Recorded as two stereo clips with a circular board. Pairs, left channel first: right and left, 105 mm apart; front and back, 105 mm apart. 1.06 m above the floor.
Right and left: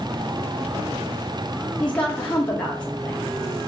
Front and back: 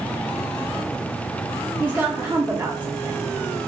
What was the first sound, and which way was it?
A woman speaking, 145° right.